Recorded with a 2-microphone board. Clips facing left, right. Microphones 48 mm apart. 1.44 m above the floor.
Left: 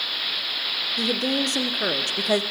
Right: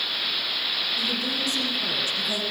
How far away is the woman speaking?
About 0.7 m.